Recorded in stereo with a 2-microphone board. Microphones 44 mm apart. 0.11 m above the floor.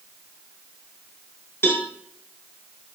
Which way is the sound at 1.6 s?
60° left (ahead or behind).